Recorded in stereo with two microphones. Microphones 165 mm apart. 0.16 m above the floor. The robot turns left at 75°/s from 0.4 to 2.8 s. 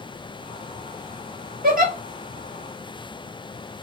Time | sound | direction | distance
1.6 | a giggle | 75° right (ahead or behind) | 0.9 m